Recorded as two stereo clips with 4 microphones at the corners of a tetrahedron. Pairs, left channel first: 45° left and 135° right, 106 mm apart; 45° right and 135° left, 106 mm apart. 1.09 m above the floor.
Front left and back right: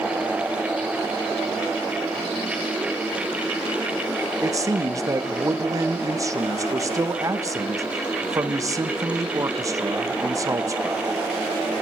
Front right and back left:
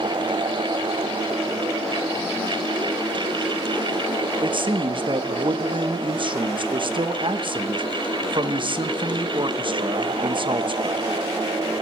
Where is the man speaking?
170° left, 1.4 m.